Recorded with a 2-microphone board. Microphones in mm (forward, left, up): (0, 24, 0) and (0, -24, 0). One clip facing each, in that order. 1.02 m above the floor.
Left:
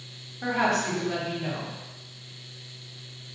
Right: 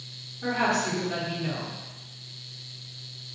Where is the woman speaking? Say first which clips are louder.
Left 1 dB; 50° left (ahead or behind), 1.9 m.